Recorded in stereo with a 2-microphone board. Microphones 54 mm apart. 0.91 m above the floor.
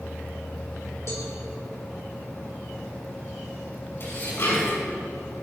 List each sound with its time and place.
1.1 s a cowbell: 55° left (ahead or behind), 3 m
4.0 s dishes clattering: 45° left (ahead or behind), 5 m